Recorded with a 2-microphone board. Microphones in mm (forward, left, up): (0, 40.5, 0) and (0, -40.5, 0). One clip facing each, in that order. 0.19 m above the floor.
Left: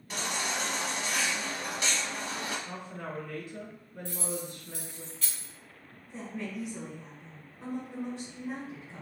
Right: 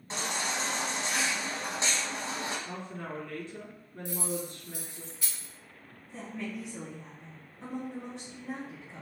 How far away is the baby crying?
About 0.9 m.